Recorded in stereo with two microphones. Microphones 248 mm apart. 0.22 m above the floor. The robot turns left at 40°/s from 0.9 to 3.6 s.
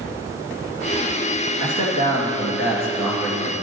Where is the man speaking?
15° right, 2.5 m; by 3.5 s 95° right, 2.5 m.